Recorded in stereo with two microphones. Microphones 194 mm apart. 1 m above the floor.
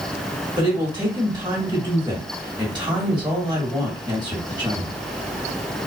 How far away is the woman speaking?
About 1.5 m.